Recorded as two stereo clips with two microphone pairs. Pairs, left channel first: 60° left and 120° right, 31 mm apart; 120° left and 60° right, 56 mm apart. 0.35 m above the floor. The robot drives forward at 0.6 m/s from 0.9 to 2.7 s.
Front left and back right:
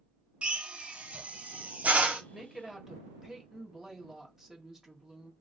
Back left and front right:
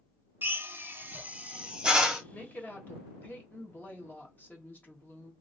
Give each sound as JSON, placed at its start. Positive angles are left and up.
{"t": 0.4, "sound": "a drill", "azimuth_deg": -95, "distance_m": 0.7}
{"t": 2.3, "sound": "a woman speaking", "azimuth_deg": 160, "distance_m": 1.0}